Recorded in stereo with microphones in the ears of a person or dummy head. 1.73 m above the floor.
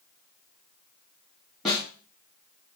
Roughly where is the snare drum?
Centre.